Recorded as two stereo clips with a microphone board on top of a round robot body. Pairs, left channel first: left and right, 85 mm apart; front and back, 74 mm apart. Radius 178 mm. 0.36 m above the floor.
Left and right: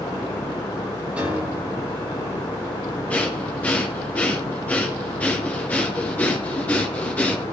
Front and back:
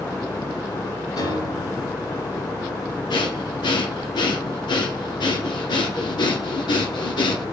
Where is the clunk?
No clunk in this recording.